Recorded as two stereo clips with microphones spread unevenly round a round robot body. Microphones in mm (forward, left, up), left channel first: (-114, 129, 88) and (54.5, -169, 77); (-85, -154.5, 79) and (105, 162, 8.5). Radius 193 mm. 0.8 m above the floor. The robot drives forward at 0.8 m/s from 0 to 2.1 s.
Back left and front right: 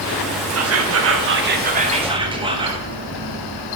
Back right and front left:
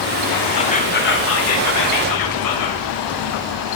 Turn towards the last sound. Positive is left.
turn(degrees=-125)